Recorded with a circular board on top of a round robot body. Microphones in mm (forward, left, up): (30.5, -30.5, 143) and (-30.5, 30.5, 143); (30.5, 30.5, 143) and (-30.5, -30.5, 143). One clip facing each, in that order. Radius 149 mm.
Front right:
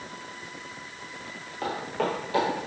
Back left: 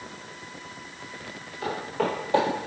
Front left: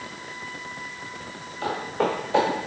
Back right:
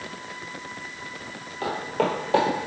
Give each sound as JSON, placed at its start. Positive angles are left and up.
{"t": 1.6, "sound": "footsteps", "azimuth_deg": -85, "distance_m": 0.8}